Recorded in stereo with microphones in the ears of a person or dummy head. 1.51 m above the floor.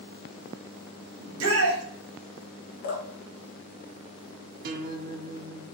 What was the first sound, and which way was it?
A shout, 65° right (ahead or behind).